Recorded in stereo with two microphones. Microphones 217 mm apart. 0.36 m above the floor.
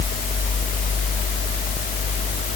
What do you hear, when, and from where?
Only background noise.